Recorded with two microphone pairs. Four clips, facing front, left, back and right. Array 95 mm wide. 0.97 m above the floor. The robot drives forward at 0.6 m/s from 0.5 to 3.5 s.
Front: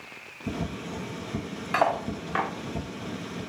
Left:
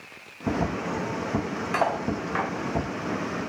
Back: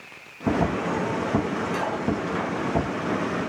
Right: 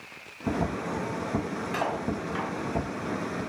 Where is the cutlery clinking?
35° left, 2.5 m; by 2.5 s 45° left, 2 m.